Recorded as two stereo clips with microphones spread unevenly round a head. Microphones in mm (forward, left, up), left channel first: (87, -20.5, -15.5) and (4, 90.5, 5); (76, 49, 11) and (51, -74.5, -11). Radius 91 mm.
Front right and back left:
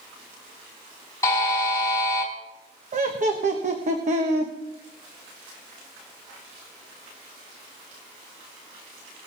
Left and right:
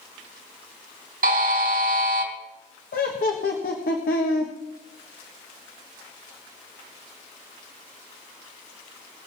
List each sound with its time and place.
1.2 s a buzzer: 130° right, 3.5 m
2.9 s laughter: 95° left, 1.4 m